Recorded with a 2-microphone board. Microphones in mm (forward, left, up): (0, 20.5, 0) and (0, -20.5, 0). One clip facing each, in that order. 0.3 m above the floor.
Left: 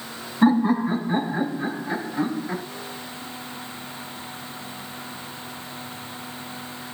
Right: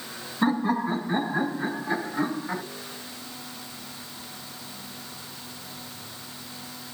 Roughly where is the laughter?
Centre.